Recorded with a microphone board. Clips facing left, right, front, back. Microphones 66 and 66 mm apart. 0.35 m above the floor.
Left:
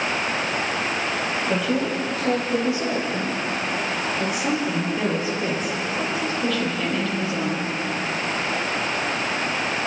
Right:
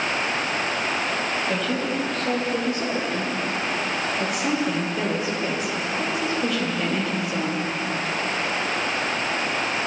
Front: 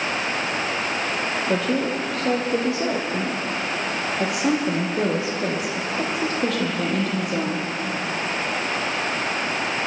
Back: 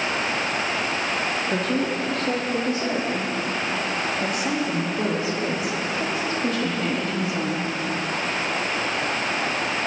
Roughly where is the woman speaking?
Ahead.